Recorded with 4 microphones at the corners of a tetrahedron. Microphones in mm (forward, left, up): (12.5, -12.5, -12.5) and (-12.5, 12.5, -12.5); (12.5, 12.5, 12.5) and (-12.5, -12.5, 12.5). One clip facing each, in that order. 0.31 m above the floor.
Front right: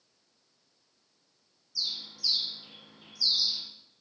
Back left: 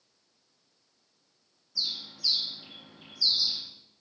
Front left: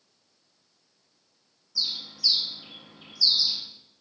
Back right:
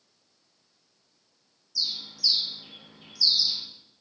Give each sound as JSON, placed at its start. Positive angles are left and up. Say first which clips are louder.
{"t": 1.8, "sound": "a bird", "louder": "back left 1 dB, even", "azimuth_deg": 95, "distance_m": 0.6}